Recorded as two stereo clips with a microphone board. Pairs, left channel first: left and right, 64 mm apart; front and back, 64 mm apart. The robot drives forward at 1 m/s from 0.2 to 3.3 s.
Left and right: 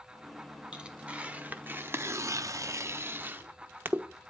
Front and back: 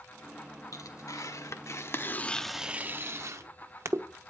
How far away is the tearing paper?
About 1.9 m.